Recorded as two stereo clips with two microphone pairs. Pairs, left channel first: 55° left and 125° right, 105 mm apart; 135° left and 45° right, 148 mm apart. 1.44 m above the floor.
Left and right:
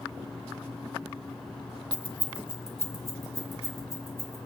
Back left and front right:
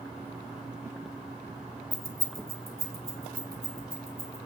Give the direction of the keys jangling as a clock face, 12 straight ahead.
2 o'clock.